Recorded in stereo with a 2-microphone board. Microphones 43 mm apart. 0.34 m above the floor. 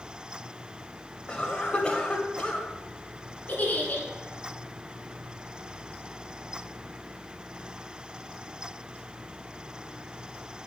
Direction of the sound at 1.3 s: 25° left (ahead or behind).